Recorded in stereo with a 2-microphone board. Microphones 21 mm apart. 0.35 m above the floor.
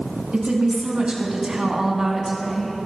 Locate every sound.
0.3 s a woman speaking: 75° right (ahead or behind), 3 m; by 2.8 s centre (ahead or behind), 3 m